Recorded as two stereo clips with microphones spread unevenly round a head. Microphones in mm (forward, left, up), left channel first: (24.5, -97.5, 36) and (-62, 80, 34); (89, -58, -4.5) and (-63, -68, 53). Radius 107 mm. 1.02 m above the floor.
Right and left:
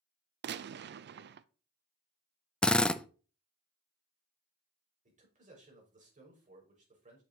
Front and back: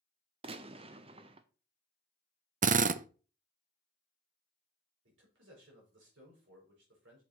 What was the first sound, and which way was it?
A gunshot, 115° left.